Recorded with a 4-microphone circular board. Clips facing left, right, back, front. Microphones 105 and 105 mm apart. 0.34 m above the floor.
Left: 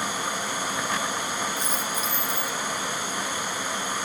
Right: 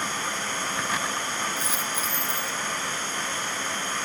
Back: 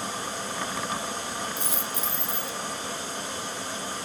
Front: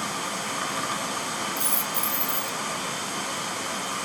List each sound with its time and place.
0.0 s running water: 10° left, 1.3 m
1.6 s a dropped coin: 175° right, 1.3 m